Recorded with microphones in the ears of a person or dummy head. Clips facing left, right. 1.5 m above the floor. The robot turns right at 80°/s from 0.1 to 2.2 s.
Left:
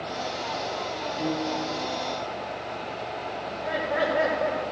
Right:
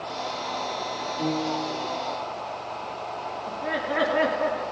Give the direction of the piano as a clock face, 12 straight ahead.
6 o'clock.